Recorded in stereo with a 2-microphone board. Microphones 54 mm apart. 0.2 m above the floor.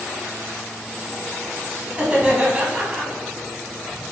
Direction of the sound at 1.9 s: 20° right (ahead or behind).